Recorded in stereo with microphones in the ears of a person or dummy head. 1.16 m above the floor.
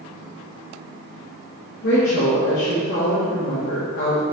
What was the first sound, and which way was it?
A woman speaking, 45° left (ahead or behind).